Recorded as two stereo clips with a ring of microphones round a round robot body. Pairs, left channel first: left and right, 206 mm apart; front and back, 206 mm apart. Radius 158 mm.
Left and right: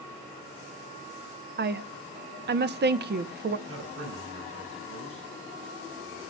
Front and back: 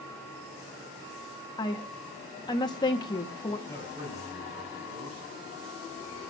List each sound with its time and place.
1.6 s a woman speaking: 65° right, 0.9 m
3.7 s a man speaking: 110° right, 4 m